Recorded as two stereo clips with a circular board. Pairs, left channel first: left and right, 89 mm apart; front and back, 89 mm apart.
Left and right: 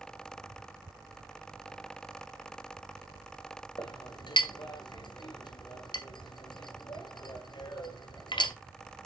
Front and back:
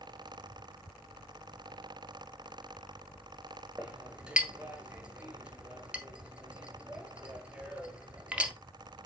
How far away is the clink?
About 1.7 m.